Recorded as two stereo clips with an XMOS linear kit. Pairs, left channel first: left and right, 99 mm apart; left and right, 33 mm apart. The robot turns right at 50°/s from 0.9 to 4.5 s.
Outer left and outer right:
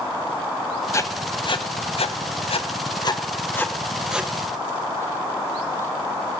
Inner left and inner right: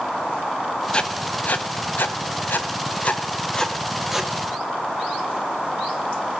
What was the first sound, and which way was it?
Writing, 25° left (ahead or behind).